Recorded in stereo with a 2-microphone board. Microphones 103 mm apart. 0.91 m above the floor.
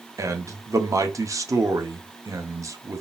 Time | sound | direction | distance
0.2 | a man speaking | 30° right (ahead or behind) | 0.8 m